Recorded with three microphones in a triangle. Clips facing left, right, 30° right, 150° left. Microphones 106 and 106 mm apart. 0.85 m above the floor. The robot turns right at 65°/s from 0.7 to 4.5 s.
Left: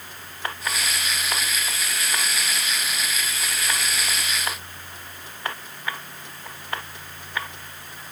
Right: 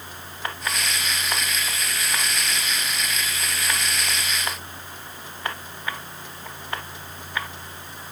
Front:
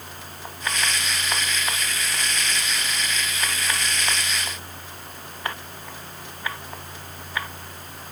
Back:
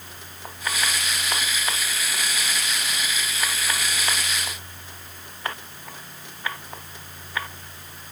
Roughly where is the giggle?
No giggle in this recording.